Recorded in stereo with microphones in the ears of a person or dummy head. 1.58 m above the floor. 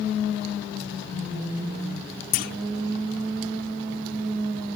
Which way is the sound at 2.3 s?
50° left (ahead or behind).